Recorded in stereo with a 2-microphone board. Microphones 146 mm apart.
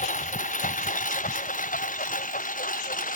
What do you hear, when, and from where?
0.0 s a lawn mower: 60° left (ahead or behind); by 3.2 s 70° left (ahead or behind)